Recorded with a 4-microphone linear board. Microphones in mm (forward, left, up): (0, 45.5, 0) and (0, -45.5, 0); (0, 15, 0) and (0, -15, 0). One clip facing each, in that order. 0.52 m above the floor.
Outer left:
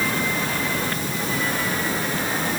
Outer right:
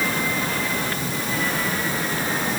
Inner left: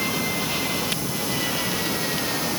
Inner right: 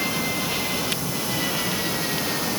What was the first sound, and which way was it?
Only background noise.